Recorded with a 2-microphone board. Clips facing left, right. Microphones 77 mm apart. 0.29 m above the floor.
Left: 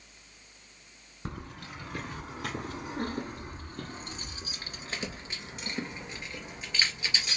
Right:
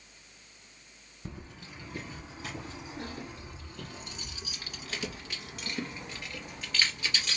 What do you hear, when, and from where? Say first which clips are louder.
1.2 s keys jangling: left 4 dB; 70° left (ahead or behind), 1.6 m; by 7.4 s 15° left (ahead or behind), 3.5 m